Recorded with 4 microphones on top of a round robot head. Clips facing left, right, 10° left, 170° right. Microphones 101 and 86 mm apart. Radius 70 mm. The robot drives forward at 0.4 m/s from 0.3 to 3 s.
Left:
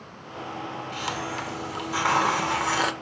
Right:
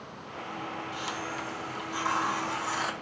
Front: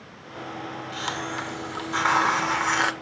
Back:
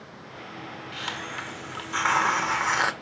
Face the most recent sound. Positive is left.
turn(degrees=110)